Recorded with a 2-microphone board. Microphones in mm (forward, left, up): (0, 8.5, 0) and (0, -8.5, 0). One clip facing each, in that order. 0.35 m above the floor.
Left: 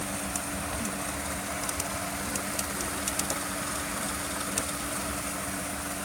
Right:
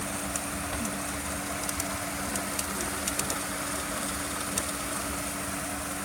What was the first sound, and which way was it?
Only background noise.